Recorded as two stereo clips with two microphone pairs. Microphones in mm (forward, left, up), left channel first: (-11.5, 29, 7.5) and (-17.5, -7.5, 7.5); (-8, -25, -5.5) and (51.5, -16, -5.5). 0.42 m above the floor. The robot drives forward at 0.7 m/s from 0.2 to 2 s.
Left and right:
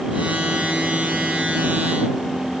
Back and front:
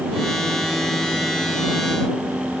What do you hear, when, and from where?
Only background noise.